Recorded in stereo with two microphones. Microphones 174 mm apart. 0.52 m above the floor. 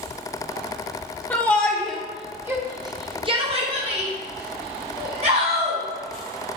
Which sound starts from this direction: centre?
A shout, at 1.3 s.